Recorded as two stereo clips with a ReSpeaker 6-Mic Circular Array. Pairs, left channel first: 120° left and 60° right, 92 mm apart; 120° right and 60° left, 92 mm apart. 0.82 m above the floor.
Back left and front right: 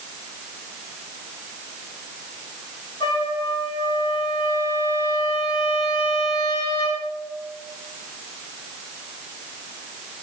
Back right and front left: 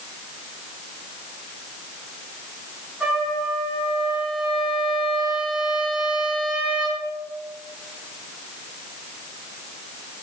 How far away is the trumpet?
About 6.5 m.